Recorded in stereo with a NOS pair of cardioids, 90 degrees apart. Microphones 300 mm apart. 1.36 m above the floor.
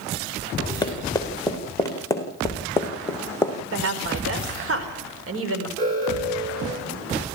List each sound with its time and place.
0.8 s running footsteps: 15° left, 5 m; by 3.5 s 10° left, 3.5 m
3.7 s a woman speaking: 45° right, 5 m
5.8 s an alarm: 60° right, 8.5 m